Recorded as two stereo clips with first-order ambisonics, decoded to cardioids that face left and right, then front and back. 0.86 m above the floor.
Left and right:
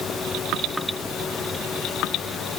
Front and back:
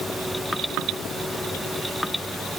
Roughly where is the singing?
I don't hear singing.